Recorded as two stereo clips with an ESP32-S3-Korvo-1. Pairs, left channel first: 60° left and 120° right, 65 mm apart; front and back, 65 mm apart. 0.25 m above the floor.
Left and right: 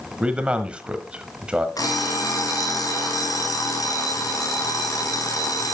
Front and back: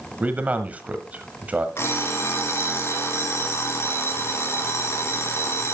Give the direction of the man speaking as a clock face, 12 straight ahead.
5 o'clock.